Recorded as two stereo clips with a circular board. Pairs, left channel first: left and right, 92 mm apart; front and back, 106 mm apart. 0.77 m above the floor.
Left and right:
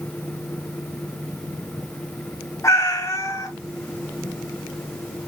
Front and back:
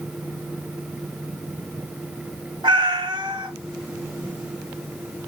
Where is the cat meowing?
145° left, 1.2 m.